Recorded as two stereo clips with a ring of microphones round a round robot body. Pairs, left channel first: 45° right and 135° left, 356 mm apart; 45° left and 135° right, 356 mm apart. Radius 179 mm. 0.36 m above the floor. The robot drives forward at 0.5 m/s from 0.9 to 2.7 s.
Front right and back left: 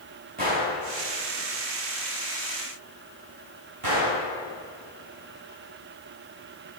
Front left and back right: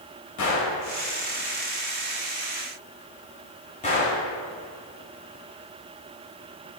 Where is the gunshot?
75° left, 1.6 m; by 4.2 s 110° left, 1.7 m.